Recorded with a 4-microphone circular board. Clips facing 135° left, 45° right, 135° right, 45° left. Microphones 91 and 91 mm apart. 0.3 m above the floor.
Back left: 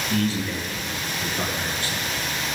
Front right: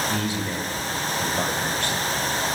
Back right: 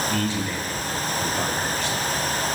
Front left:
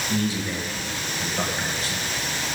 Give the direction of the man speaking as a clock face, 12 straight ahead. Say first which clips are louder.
Back left 2 dB, even; 11 o'clock.